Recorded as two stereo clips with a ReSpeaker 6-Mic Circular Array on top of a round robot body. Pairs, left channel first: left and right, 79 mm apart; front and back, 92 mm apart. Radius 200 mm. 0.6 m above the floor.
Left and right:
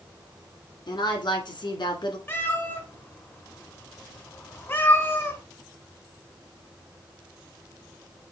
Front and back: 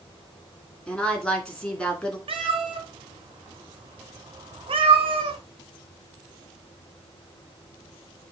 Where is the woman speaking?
80° left, 3 m.